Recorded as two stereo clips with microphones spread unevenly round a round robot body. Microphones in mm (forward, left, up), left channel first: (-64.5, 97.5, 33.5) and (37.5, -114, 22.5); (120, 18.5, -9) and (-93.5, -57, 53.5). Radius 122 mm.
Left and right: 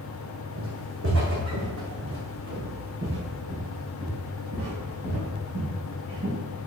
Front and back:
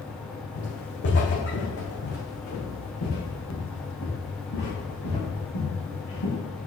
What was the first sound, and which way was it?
Footsteps, 25° right.